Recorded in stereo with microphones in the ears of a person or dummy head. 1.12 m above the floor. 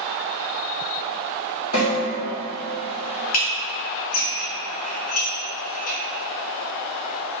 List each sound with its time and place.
1.7 s a snare drum: 80° left, 1.7 m
3.3 s dishes clattering: 45° left (ahead or behind), 0.6 m